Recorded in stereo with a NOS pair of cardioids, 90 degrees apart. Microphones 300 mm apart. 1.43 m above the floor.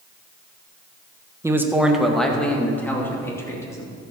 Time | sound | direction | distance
1.4 | a man speaking | 10° right | 1.3 m